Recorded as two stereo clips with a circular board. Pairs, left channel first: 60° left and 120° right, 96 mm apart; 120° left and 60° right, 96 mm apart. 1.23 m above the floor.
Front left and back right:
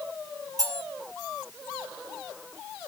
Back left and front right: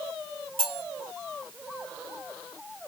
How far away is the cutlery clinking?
About 2.0 m.